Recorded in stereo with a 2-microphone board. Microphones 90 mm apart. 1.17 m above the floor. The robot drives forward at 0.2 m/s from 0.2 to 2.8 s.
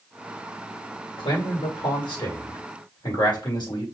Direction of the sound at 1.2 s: 65° left (ahead or behind).